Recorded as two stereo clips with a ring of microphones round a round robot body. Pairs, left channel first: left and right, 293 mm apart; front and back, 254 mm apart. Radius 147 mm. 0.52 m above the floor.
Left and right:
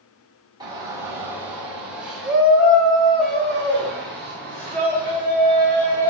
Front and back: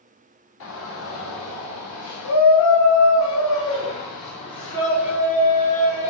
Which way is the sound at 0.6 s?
15° right.